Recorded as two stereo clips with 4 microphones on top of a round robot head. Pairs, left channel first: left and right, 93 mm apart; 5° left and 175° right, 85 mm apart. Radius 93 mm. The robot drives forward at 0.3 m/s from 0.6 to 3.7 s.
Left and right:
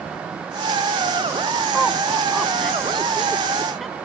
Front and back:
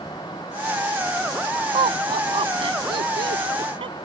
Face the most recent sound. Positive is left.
turn(degrees=180)